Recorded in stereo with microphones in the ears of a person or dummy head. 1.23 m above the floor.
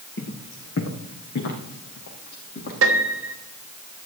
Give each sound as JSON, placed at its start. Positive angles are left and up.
{"t": 0.2, "sound": "footsteps", "side_deg": 70, "distance_m": 3.5}
{"t": 2.8, "sound": "a piano", "side_deg": -80, "distance_m": 1.3}